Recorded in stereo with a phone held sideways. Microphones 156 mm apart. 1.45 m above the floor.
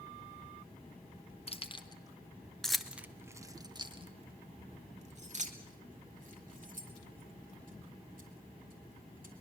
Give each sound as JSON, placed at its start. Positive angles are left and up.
{"t": 1.5, "sound": "keys jangling", "side_deg": 40, "distance_m": 1.1}